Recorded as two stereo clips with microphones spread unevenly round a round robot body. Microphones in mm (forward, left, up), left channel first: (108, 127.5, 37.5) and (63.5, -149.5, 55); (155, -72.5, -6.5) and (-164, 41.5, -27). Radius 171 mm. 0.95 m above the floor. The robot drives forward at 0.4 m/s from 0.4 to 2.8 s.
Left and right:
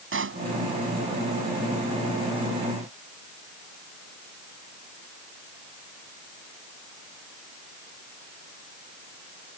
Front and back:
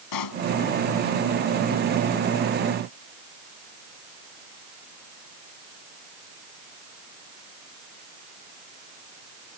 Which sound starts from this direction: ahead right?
A pop, at 0.1 s.